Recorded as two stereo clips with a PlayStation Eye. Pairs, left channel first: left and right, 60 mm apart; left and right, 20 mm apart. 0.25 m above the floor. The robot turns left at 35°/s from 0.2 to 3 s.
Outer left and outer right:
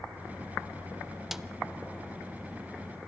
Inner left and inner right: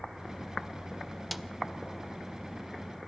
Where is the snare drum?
5° right (ahead or behind), 0.6 m; by 1.5 s 10° right (ahead or behind), 0.6 m.